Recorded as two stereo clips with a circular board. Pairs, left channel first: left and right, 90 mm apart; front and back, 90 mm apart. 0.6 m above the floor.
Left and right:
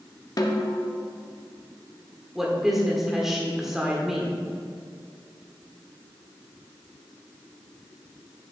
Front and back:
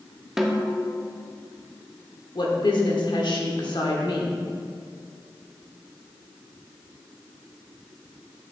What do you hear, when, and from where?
0.4 s a snare drum: 95° left, 0.6 m
2.4 s a woman speaking: 5° right, 1.2 m